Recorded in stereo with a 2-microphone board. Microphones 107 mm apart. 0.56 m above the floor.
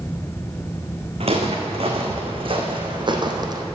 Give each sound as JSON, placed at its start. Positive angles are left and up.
{"t": 1.2, "sound": "footsteps", "side_deg": -65, "distance_m": 2.0}